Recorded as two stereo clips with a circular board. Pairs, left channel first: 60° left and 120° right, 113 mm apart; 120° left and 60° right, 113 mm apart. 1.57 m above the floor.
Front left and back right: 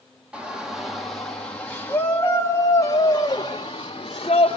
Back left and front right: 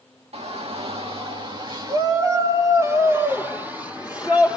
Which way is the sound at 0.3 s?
40° right.